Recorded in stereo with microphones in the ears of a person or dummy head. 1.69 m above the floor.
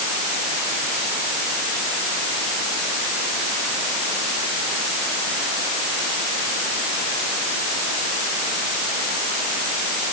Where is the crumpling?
I don't hear crumpling.